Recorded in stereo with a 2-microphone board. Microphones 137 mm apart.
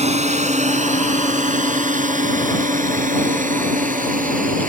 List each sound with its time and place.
0.0 s a drone: 55° right (ahead or behind); by 4.7 s 80° right